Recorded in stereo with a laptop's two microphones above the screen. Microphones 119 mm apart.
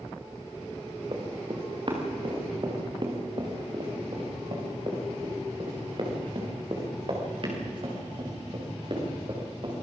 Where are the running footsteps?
45° right (ahead or behind), 4 m.